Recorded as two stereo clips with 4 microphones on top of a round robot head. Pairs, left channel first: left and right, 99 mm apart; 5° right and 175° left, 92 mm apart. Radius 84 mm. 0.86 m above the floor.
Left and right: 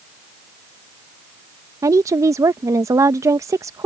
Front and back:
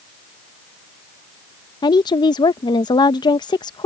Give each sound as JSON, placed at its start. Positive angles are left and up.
{"t": 1.8, "sound": "a woman speaking", "azimuth_deg": -35}